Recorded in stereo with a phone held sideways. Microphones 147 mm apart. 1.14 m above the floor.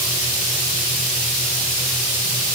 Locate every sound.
Only background noise.